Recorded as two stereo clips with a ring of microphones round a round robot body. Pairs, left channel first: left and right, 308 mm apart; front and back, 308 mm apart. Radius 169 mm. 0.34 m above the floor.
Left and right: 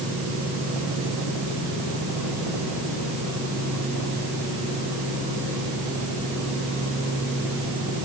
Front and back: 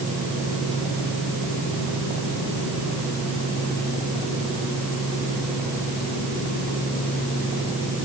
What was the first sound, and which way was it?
Only background noise.